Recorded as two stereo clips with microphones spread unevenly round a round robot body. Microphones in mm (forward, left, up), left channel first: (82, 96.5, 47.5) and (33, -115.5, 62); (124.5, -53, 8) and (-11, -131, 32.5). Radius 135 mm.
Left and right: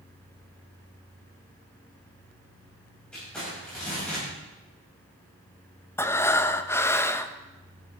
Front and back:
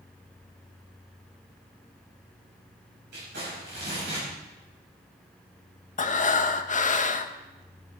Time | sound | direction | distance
3.1 | crumpling | 165° left | 6 m
6.0 | breathing | straight ahead | 0.9 m